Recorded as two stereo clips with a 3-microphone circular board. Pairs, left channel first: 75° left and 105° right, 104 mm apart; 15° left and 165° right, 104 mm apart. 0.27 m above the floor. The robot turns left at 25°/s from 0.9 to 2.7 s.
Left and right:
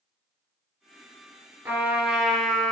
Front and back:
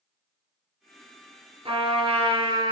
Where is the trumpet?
175° right, 2.5 m; by 2.7 s 160° left, 2.5 m.